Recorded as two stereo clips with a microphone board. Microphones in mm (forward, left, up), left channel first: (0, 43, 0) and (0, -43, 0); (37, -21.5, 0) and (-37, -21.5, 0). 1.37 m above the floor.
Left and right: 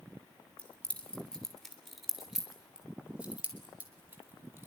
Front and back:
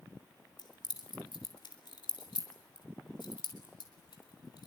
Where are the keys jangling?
15° left, 3 m; by 4.7 s 25° right, 4.5 m.